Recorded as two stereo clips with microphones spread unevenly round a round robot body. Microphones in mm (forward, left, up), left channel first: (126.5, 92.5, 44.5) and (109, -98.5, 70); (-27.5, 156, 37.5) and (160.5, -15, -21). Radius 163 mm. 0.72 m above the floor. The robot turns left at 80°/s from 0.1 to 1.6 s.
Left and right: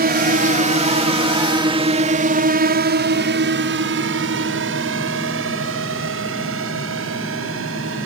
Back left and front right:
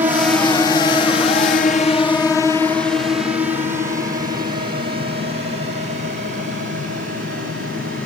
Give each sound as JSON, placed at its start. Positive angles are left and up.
{"t": 0.0, "sound": "a drone", "azimuth_deg": -110}